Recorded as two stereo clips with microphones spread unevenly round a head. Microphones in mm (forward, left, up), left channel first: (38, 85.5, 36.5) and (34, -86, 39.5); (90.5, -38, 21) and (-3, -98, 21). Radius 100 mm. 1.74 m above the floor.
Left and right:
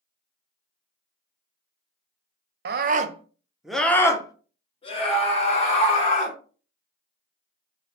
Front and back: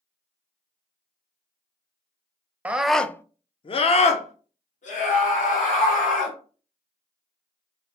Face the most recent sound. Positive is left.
turn(degrees=40)